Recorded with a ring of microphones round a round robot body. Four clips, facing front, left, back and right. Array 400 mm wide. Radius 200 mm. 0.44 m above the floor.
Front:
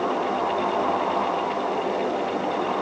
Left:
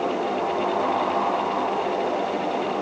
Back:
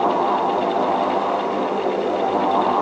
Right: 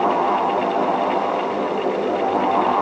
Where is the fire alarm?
No fire alarm in this recording.